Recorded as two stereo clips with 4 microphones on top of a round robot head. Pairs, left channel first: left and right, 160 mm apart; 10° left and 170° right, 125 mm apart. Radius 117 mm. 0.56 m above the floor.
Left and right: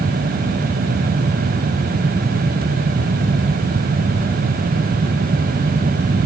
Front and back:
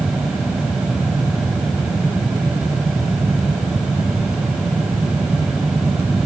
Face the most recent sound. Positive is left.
No sound to turn to.